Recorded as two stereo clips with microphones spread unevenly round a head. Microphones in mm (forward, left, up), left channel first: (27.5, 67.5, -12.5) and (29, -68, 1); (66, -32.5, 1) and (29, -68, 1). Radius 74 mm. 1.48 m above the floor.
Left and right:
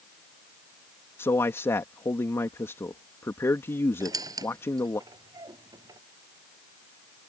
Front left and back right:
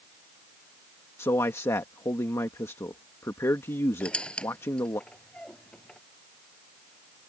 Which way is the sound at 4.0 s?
25° right.